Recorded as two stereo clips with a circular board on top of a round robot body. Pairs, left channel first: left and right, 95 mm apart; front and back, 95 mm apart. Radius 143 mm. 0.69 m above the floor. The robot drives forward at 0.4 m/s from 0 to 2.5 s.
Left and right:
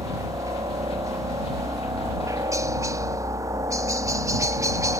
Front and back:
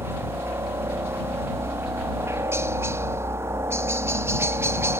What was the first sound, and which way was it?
A helicopter, 125° right.